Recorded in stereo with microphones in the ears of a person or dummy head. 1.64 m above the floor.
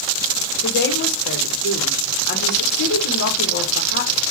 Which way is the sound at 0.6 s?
65° left (ahead or behind).